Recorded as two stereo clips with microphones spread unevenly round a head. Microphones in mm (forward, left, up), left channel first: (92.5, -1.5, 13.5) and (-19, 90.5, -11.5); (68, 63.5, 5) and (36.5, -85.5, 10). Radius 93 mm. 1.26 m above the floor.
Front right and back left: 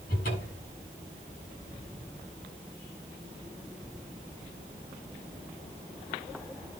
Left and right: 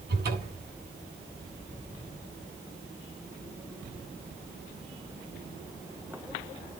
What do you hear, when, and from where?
0.1 s a cupboard door: 85° right, 7.5 m